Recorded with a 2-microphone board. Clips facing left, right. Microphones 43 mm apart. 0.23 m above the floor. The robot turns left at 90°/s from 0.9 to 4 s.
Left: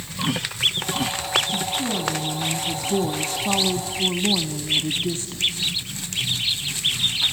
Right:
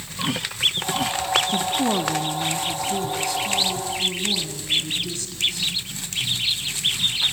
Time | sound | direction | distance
1.5 | a woman speaking | 90° right | 1.6 m